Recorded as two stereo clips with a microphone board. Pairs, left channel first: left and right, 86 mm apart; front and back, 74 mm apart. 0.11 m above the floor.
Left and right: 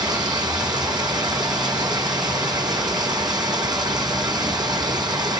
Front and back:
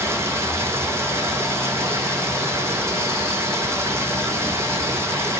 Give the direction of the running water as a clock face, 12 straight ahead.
4 o'clock.